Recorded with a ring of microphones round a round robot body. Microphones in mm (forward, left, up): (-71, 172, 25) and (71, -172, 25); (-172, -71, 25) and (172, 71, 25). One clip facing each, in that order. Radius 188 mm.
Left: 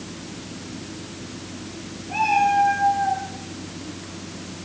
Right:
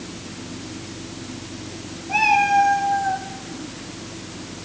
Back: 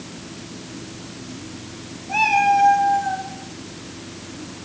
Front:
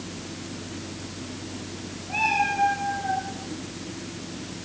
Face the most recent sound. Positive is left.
turn(degrees=-100)